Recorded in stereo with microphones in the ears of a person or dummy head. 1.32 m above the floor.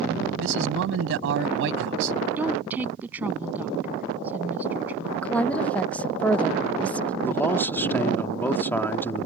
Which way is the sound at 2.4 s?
10° right (ahead or behind).